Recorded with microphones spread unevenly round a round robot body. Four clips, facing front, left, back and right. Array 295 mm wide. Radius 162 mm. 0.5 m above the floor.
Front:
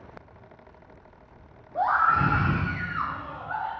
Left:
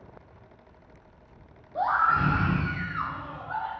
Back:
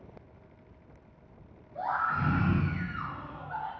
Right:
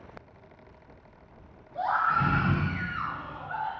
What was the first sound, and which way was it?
A scream, 25° left.